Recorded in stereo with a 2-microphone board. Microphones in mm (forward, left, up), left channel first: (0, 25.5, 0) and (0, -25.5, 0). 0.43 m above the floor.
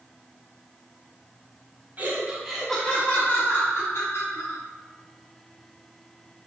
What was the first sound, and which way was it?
Laughter, 35° right (ahead or behind).